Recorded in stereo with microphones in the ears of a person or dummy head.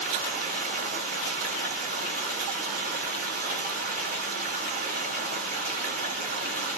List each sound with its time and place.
0.0 s running water: 45° right (ahead or behind), 1.6 m